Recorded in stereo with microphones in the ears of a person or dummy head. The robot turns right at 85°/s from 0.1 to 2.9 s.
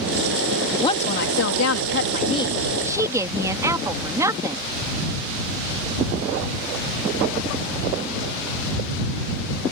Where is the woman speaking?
15° left; by 4.6 s 165° right.